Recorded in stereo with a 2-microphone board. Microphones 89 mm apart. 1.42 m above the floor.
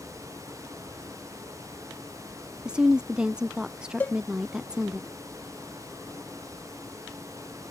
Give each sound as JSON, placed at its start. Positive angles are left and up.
{"t": 2.6, "sound": "a woman speaking", "side_deg": -10}
{"t": 4.0, "sound": "a cowbell", "side_deg": 20}